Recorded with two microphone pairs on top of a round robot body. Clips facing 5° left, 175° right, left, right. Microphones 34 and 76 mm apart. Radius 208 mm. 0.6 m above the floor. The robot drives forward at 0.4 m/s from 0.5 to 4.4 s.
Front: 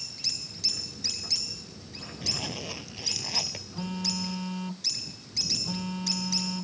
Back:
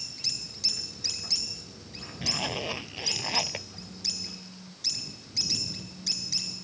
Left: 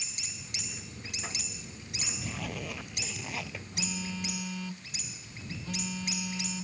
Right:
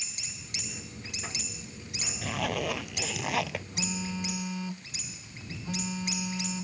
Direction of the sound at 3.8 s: 15° right.